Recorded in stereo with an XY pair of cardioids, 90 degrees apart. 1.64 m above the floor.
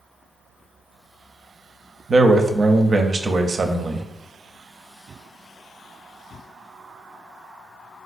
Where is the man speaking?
40° right, 0.5 m.